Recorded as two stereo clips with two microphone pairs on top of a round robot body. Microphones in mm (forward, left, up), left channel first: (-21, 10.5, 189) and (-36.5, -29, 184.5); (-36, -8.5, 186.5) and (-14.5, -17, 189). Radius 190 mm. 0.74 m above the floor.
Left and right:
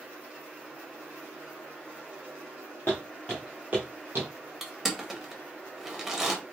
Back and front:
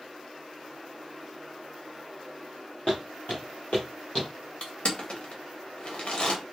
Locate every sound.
2.9 s footsteps: 90° left, 0.8 m; by 4.3 s 135° right, 0.9 m
4.6 s crushing: 170° left, 1.5 m